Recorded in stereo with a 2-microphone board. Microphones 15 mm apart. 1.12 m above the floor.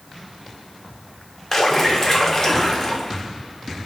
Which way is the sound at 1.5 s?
20° left (ahead or behind).